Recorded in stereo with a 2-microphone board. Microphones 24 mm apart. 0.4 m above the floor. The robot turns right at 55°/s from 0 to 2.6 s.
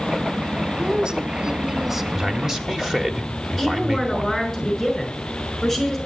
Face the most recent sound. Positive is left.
turn(degrees=0)  # may be behind; listen again after turning